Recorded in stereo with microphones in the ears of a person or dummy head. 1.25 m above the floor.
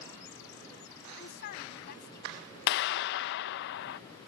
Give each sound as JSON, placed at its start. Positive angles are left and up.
{"t": 1.2, "sound": "a woman speaking", "side_deg": 55}
{"t": 2.7, "sound": "a clap", "side_deg": 60}